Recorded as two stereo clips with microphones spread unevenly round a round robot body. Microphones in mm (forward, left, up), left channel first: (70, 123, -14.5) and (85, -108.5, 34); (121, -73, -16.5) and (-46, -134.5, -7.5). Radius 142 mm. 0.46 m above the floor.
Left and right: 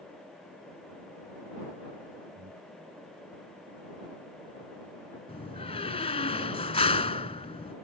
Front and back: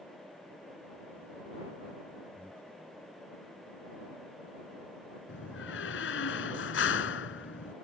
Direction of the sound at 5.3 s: 30° left.